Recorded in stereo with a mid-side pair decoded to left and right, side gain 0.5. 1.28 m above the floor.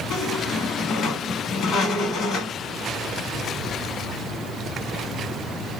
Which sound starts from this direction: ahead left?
A squeak, at 0.1 s.